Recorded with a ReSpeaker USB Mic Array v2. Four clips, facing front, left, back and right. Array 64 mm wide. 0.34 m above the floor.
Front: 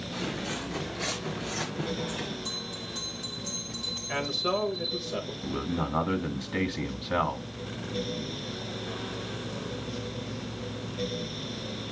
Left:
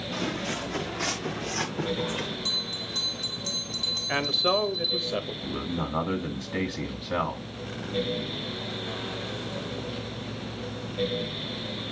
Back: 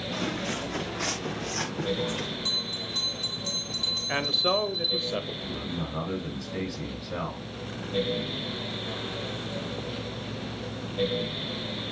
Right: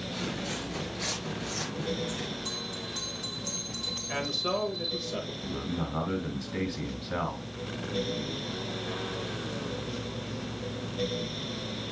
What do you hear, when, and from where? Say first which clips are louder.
0.1 s footsteps: left 5 dB, back 2 dB; 140° left, 3 m; by 2.4 s 115° left, 2.5 m
2.5 s a bell: left 2 dB, back 2 dB; 155° left, 3.5 m
4.1 s a man speaking: left 5 dB, back 2 dB; 130° left, 1.2 m
5.4 s a man speaking: left 2 dB, front 3 dB; 35° left, 1.9 m